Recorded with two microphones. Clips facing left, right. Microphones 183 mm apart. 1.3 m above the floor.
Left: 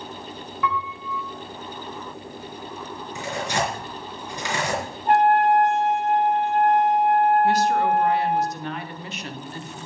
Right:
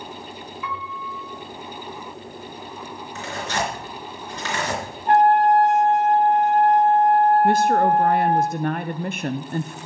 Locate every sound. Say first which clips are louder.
0.6 s a piano: left 7 dB; 60° left (ahead or behind), 3 m
3.1 s tearing paper: left 1 dB; 15° left (ahead or behind), 4 m
5.1 s a trumpet: right 2 dB; 10° left (ahead or behind), 3.5 m
7.4 s a woman speaking: right 3 dB; 50° right (ahead or behind), 0.7 m